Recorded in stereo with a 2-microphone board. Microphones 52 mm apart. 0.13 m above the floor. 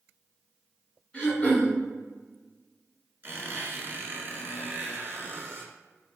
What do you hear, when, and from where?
1.1 s throat clearing: 20° left (ahead or behind), 1.6 m
3.2 s a squeak: 40° right (ahead or behind), 1.1 m